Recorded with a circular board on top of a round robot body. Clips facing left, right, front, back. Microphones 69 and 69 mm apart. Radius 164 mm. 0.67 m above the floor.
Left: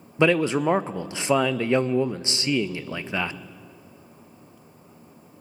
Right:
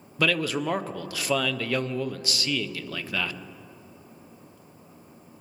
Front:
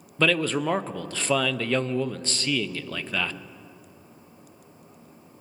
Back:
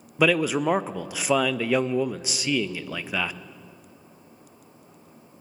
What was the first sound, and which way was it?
A man speaking, 115° left.